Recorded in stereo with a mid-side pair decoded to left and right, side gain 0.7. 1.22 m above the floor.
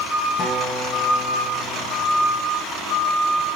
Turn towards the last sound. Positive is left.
turn(degrees=40)